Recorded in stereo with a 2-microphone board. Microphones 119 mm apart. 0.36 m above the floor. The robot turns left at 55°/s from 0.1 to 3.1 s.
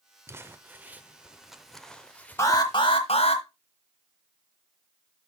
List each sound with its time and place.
0.3 s crumpling: 20° right (ahead or behind), 0.7 m; by 2.8 s 20° left (ahead or behind), 0.7 m
2.4 s an alarm: 155° left, 1.2 m; by 3.4 s 115° left, 1.2 m